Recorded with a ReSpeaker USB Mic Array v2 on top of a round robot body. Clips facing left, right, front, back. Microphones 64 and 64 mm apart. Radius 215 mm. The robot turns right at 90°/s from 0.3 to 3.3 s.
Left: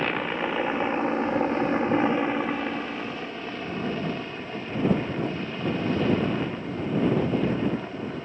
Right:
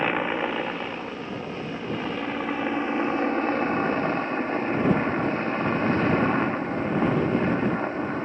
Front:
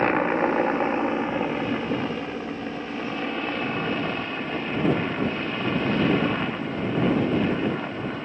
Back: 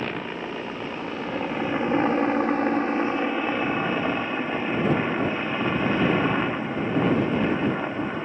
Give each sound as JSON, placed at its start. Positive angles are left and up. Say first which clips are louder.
{"t": 0.0, "sound": "a helicopter", "louder": "right 2 dB, front 9 dB", "azimuth_deg": -20}